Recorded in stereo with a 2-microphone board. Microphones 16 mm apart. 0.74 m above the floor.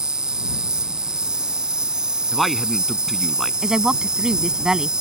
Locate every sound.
0.0 s an insect: 55° right (ahead or behind)
2.3 s a man speaking: centre (ahead or behind)
3.6 s a woman speaking: 60° right (ahead or behind)